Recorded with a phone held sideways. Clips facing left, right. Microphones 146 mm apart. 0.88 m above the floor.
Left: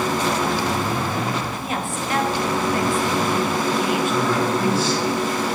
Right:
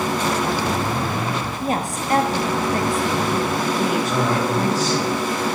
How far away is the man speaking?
About 5 m.